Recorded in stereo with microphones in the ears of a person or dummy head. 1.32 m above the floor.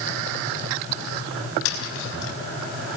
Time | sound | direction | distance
1.6 | tapping | 80° left | 4 m